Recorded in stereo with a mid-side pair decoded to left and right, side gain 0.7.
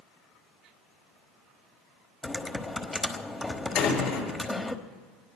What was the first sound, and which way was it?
Typing on a keyboard, 15° left.